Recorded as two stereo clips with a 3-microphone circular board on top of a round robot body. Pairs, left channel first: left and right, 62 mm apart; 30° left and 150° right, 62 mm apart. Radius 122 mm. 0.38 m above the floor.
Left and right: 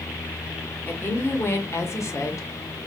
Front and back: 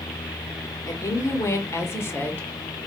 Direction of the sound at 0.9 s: 40° left.